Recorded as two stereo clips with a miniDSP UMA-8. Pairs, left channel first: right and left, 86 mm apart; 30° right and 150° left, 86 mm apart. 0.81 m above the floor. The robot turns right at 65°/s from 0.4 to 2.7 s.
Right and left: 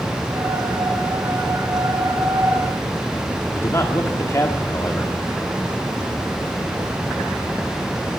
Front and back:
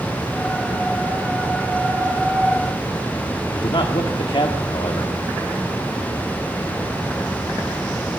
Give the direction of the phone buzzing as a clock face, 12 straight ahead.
I don't hear a phone buzzing.